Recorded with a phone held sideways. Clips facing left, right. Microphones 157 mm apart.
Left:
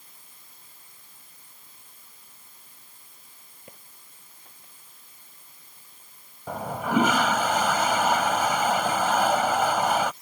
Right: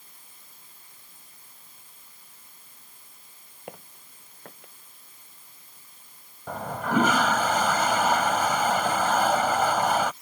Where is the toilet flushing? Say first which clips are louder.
Left 1 dB; 10° left (ahead or behind).